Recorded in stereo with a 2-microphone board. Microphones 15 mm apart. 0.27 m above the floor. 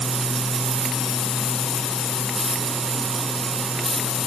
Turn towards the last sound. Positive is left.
No sound to turn to.